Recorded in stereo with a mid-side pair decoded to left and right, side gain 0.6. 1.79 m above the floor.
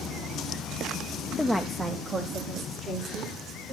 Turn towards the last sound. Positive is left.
turn(degrees=-50)